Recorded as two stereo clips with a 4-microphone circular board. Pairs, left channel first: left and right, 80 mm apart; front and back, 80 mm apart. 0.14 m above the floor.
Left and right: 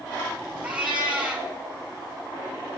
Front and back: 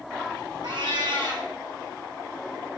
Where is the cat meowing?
160° right, 1.3 m.